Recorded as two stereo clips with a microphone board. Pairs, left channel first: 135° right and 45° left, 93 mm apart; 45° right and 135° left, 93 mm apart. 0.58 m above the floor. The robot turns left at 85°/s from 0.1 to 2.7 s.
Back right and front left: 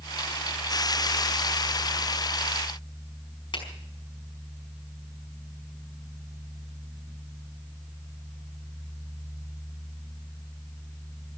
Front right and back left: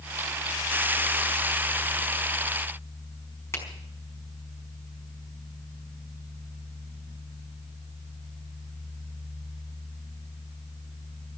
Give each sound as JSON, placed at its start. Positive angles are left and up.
{"t": 3.5, "sound": "a finger snap", "azimuth_deg": -105, "distance_m": 5.0}